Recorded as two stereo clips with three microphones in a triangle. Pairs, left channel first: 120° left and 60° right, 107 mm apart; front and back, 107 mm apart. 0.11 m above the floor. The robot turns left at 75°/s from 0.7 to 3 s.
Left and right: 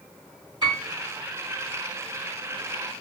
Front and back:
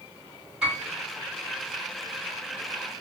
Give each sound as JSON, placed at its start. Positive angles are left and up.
{"t": 0.6, "sound": "a piano", "azimuth_deg": -100, "distance_m": 1.9}